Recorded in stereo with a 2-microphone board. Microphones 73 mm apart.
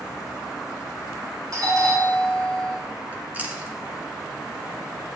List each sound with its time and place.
1.5 s a doorbell: 55° right (ahead or behind), 4 m
3.1 s chewing: 20° right (ahead or behind), 1.7 m